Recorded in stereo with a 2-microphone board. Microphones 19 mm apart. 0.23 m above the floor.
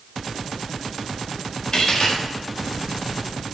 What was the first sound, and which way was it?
A dropped coin, 40° left (ahead or behind).